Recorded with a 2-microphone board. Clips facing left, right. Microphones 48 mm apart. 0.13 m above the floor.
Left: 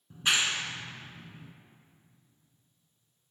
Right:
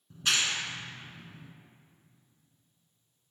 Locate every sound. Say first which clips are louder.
0.1 s a clap: left 1 dB; 20° left (ahead or behind), 0.9 m